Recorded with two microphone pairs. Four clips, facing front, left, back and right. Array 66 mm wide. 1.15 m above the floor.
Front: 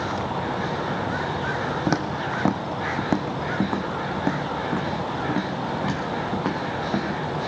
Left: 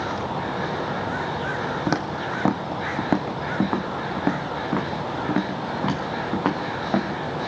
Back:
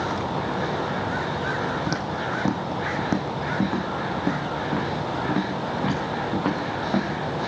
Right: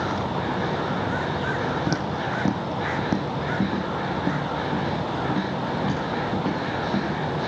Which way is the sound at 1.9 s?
55° left.